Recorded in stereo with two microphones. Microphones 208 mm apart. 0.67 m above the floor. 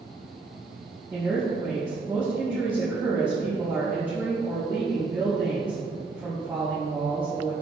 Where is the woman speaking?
10° right (ahead or behind), 1.3 m.